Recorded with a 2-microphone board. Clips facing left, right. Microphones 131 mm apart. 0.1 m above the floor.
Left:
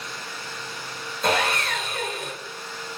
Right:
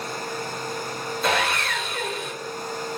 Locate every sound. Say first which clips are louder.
1.2 s sawing: left 1 dB; 40° left (ahead or behind), 1.3 m